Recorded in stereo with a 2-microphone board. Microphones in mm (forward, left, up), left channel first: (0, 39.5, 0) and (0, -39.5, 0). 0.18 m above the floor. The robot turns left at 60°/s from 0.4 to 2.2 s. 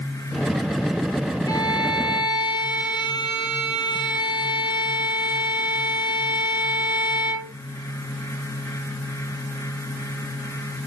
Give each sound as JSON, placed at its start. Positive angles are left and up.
{"t": 1.5, "sound": "a violin", "azimuth_deg": 125, "distance_m": 3.5}